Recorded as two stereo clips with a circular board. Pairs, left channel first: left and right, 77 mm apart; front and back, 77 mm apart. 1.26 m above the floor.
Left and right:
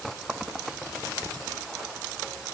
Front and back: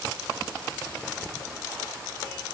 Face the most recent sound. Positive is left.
No sound to turn to.